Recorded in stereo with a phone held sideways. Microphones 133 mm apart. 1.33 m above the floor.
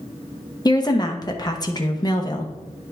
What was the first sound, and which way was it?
A woman speaking, 30° left (ahead or behind).